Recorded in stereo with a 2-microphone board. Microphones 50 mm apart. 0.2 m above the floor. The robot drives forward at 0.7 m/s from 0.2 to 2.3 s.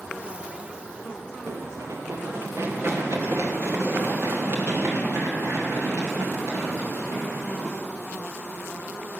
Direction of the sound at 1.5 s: 80° right.